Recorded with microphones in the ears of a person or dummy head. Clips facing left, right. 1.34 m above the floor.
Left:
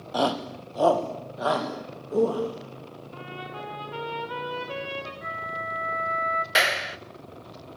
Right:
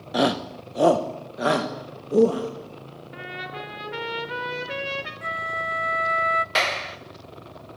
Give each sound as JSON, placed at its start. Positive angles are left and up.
{"t": 0.1, "sound": "a shout", "side_deg": -20, "distance_m": 0.9}
{"t": 3.1, "sound": "a trumpet", "side_deg": -20, "distance_m": 4.5}
{"t": 5.2, "sound": "a flute", "side_deg": -30, "distance_m": 0.6}
{"t": 6.5, "sound": "a clap", "side_deg": 10, "distance_m": 0.6}